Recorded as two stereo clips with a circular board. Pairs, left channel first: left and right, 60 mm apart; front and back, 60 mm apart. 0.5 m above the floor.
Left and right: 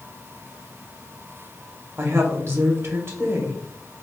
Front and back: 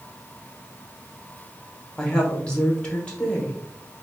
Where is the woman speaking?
70° right, 1.2 m.